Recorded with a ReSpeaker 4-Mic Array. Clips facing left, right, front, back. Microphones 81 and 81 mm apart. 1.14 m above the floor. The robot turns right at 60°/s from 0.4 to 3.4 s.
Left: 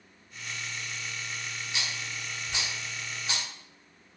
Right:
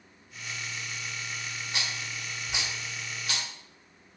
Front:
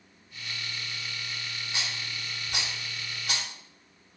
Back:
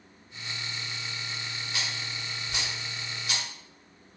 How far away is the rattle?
About 1.3 m.